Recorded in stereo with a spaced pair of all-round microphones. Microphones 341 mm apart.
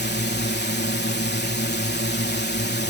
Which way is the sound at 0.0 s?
30° left (ahead or behind).